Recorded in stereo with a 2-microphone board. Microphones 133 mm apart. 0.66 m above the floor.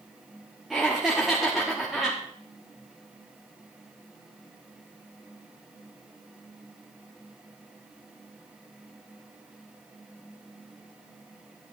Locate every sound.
0.7 s laughter: centre (ahead or behind), 1.3 m